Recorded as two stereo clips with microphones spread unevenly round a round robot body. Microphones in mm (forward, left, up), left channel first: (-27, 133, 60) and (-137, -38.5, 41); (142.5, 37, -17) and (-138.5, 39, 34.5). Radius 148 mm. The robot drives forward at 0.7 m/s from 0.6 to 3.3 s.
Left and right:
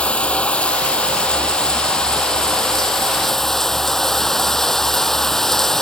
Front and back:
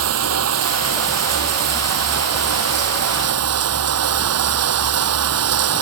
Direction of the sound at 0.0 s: 140° left.